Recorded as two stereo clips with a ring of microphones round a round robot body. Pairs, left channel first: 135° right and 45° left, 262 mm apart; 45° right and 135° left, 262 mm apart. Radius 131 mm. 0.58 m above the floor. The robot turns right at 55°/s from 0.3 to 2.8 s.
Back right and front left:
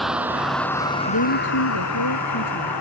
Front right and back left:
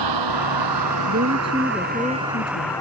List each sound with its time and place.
0.0 s a vehicle: 135° left; by 2.8 s 125° right
1.1 s a woman speaking: 175° right; by 2.8 s 80° right